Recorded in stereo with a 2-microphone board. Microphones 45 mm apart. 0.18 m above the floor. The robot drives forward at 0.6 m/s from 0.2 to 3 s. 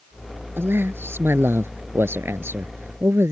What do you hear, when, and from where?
0.6 s a man speaking: 60° right (ahead or behind); by 3.3 s 65° right (ahead or behind)